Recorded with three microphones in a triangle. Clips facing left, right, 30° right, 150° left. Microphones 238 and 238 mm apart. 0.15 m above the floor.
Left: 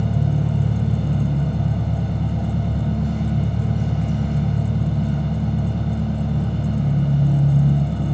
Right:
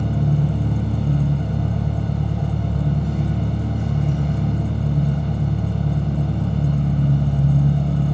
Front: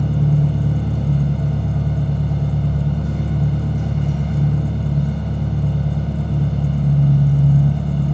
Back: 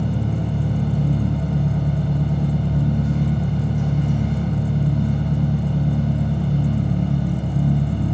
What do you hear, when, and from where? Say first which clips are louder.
0.0 s an engine running: right 1 dB, front 4 dB; 65° right, 1.2 m